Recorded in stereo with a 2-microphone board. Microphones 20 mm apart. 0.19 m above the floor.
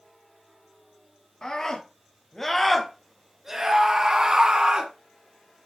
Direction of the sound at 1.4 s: 35° left (ahead or behind).